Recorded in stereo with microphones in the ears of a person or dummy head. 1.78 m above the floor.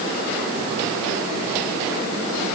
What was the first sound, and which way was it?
Only background noise.